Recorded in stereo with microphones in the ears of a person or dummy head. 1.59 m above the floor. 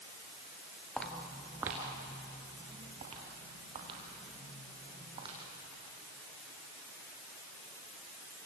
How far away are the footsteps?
About 1.9 m.